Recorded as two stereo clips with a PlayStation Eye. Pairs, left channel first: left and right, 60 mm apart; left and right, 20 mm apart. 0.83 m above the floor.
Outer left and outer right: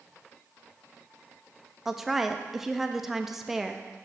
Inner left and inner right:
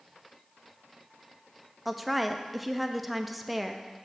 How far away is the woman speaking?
About 0.5 m.